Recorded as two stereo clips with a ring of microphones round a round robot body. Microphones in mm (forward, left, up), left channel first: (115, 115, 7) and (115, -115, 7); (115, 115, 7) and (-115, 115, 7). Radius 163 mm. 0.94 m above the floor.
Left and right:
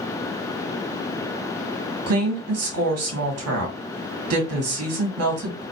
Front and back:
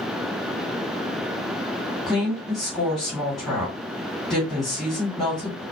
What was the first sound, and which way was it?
A woman speaking, 90° right.